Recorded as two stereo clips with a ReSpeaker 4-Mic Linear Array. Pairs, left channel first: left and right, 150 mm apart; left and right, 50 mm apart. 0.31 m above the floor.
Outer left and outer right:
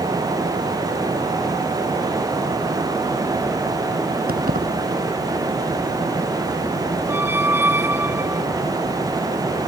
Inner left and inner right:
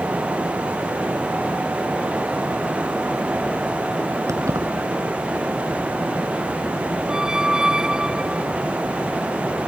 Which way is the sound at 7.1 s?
15° right (ahead or behind).